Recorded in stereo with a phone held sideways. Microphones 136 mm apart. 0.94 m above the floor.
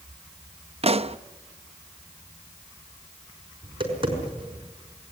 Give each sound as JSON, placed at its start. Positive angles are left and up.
{"t": 0.8, "sound": "a pop", "side_deg": -50, "distance_m": 0.5}
{"t": 3.6, "sound": "tapping", "side_deg": -40, "distance_m": 5.0}